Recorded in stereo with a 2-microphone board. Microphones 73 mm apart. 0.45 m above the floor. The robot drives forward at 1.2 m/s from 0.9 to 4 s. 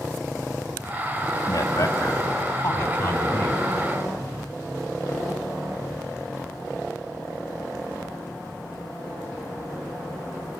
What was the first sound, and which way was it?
A man speaking, 50° left (ahead or behind).